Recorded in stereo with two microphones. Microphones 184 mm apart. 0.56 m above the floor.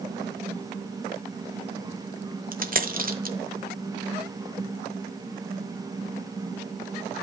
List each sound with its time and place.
2.5 s a dropped coin: 50° right (ahead or behind), 0.9 m